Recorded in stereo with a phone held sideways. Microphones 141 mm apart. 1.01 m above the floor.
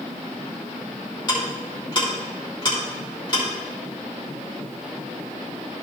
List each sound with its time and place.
1.3 s ticking: 35° left (ahead or behind), 2.5 m